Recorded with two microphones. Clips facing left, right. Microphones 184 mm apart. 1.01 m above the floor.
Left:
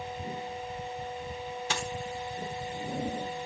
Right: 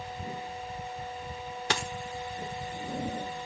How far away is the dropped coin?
About 1.5 m.